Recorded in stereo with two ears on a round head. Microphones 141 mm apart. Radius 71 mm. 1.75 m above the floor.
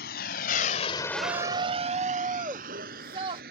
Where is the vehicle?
70° left (ahead or behind); by 3.5 s 60° right (ahead or behind).